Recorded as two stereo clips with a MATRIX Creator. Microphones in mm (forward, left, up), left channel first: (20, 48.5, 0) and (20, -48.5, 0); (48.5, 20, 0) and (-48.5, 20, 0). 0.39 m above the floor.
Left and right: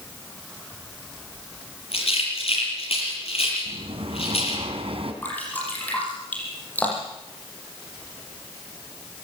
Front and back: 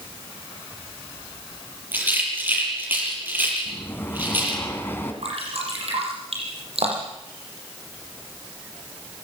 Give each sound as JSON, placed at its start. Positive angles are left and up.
{"t": 1.9, "sound": "a rattle", "azimuth_deg": 110, "distance_m": 6.5}
{"t": 3.6, "sound": "breathing", "azimuth_deg": -70, "distance_m": 2.5}
{"t": 5.2, "sound": "dripping", "azimuth_deg": 165, "distance_m": 8.0}